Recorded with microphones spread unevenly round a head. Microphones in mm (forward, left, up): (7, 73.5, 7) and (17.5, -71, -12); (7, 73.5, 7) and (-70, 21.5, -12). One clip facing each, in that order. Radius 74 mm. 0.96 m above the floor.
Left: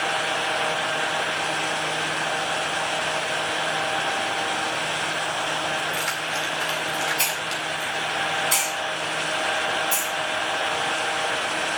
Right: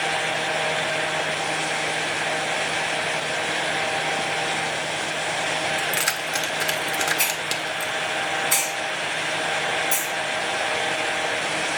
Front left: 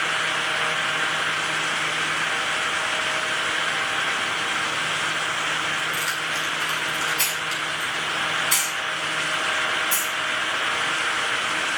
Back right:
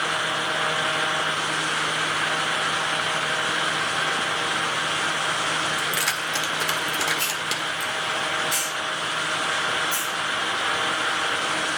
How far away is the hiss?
About 3 m.